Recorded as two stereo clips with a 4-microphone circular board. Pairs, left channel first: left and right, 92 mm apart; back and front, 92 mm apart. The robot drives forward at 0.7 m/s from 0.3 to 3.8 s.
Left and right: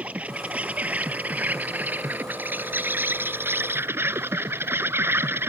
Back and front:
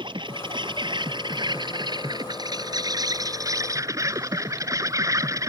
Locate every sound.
0.0 s an insect: 15° right; by 5.5 s 35° right